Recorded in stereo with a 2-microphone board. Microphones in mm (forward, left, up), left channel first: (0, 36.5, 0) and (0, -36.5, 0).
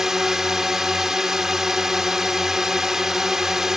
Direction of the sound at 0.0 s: 5° right (ahead or behind).